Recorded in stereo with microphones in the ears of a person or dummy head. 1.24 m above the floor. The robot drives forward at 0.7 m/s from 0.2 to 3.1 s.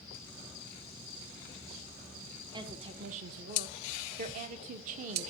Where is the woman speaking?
25° right (ahead or behind), 0.8 m; by 5.3 s 45° right (ahead or behind), 0.5 m.